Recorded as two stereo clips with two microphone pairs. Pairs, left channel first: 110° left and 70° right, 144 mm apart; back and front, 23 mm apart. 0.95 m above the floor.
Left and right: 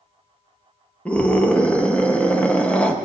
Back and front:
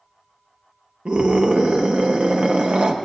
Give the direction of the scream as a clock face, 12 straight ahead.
11 o'clock.